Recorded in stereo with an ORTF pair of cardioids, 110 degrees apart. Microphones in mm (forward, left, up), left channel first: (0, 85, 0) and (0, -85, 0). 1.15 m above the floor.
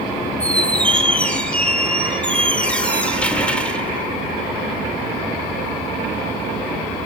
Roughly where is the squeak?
Ahead.